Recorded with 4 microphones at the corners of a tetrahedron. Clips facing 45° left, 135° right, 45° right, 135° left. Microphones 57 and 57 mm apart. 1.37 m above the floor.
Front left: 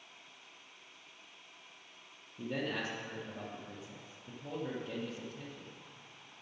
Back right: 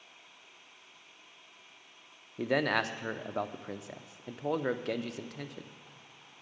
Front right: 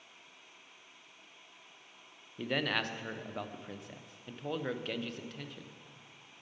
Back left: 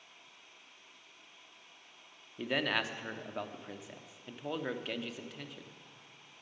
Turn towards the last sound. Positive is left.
turn(degrees=-140)